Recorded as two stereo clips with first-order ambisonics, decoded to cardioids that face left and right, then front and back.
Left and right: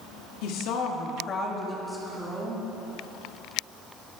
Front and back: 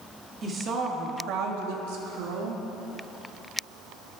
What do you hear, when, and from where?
0.4 s a woman speaking: 110° left, 2.0 m; by 2.6 s 165° right, 2.5 m